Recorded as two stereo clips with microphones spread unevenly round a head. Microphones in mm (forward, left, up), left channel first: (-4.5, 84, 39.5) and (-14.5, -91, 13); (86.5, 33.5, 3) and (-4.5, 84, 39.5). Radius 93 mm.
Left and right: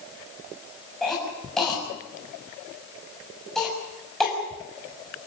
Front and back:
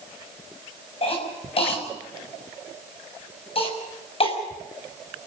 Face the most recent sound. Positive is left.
turn(degrees=0)